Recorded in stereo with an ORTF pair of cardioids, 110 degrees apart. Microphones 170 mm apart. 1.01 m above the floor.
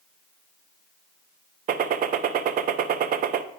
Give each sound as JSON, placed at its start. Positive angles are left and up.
{"t": 1.7, "sound": "a gunshot", "azimuth_deg": -55, "distance_m": 0.6}